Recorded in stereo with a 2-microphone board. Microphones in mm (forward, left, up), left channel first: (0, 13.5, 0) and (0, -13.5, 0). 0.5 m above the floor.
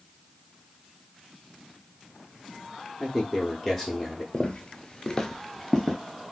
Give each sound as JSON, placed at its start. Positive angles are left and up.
{"t": 3.0, "sound": "a man speaking", "side_deg": 5, "distance_m": 0.7}
{"t": 4.3, "sound": "footsteps", "side_deg": 35, "distance_m": 0.6}